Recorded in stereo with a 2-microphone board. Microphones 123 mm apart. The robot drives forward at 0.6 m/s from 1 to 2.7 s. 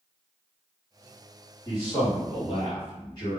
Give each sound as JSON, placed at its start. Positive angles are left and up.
{"t": 1.6, "sound": "a man speaking", "side_deg": 35, "distance_m": 1.8}